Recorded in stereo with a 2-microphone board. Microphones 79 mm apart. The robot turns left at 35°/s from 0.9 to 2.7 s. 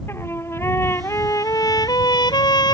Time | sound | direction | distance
0.1 | a trumpet | 145° left | ?